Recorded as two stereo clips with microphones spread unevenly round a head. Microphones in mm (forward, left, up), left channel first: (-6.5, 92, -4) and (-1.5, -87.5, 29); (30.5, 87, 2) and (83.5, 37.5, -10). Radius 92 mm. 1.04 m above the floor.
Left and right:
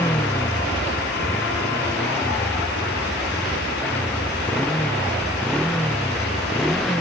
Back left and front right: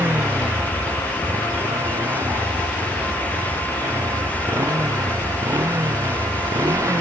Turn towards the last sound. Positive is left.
turn(degrees=5)